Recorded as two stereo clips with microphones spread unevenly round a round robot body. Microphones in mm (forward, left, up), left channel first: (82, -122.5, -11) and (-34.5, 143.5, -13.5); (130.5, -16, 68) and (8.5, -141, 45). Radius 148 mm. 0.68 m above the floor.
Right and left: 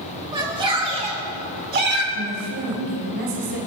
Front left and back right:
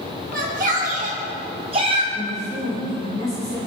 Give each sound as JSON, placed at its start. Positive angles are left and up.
{"t": 0.3, "sound": "a shout", "azimuth_deg": -170, "distance_m": 3.5}
{"t": 2.1, "sound": "a woman speaking", "azimuth_deg": 115, "distance_m": 3.5}